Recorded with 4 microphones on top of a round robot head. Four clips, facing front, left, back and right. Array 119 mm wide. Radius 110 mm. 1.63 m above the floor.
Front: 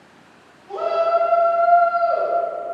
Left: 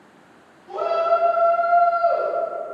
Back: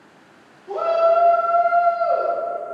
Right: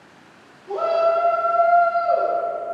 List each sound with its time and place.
0.7 s a shout: 150° right, 0.7 m; by 2.3 s 140° left, 1.0 m